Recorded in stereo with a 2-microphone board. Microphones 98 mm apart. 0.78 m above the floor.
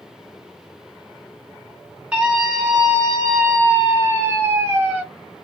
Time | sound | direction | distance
2.1 | a scream | 15° right (ahead or behind) | 1.0 m